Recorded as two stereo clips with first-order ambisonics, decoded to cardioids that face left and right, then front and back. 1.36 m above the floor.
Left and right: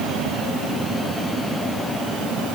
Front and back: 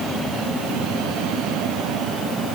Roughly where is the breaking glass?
No breaking glass in this recording.